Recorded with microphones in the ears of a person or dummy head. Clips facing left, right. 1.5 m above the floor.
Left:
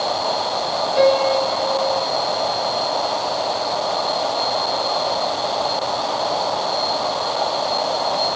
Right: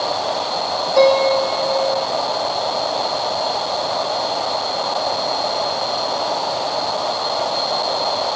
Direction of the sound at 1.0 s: 65° right (ahead or behind).